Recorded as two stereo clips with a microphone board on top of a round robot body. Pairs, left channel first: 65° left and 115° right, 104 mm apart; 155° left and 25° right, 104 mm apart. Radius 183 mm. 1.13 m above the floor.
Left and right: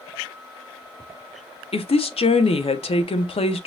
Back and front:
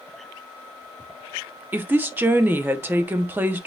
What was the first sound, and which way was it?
A woman speaking, 50° left.